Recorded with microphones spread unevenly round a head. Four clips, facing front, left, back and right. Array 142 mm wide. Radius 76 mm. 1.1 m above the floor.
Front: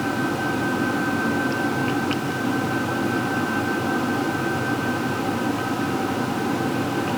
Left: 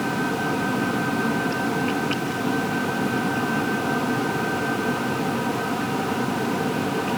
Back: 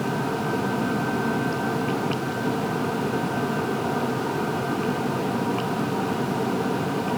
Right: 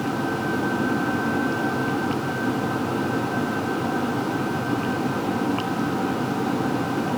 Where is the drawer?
I don't hear a drawer.